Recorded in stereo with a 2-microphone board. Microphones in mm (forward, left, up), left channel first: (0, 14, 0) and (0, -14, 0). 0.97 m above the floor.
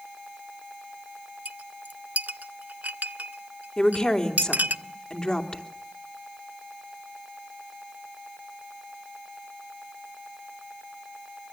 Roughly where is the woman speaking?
Left.